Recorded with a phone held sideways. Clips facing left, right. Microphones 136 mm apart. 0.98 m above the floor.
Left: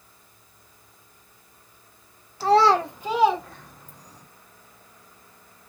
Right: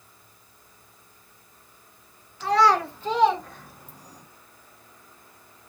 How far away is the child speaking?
About 0.9 m.